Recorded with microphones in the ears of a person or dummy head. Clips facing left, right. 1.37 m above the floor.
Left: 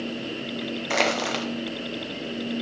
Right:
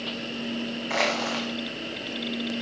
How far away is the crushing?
About 0.9 m.